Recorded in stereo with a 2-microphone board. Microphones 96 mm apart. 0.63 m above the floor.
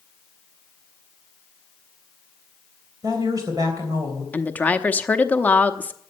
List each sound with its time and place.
3.0 s a woman speaking: 40° right (ahead or behind), 3.5 m
4.3 s a woman speaking: 15° left (ahead or behind), 0.9 m